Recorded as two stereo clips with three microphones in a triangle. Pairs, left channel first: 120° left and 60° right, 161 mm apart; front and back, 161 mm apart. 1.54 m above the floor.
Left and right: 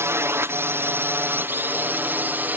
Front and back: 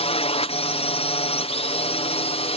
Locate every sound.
0.0 s a drone: 5° left; by 2.6 s 10° left